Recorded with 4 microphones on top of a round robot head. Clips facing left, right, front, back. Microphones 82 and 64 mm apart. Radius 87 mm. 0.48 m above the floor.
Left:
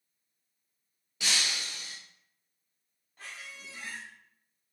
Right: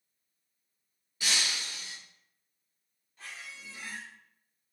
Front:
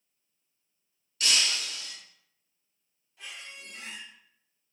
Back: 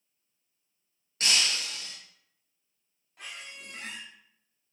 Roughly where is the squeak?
Behind left.